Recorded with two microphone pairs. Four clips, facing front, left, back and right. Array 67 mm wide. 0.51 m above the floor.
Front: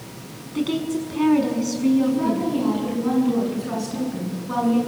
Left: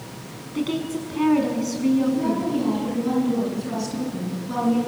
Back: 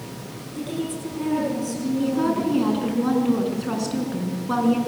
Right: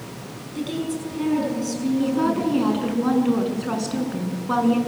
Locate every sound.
0.6 s a woman speaking: 50° left, 5.5 m
2.0 s a woman speaking: 110° right, 6.5 m